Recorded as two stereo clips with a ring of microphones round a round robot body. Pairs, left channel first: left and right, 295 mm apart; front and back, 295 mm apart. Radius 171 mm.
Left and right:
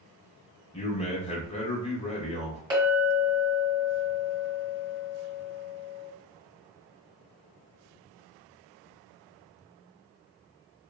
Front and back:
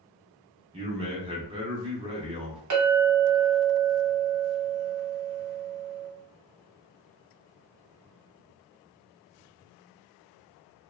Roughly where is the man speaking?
Behind left.